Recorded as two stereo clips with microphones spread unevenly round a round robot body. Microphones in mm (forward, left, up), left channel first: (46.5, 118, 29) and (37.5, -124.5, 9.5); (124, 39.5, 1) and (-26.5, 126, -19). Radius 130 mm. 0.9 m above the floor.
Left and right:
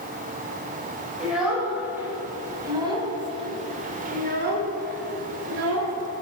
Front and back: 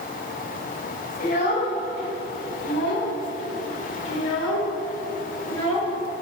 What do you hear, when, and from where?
1.2 s a child speaking: 5° right, 3 m; by 5.9 s 65° right, 1.9 m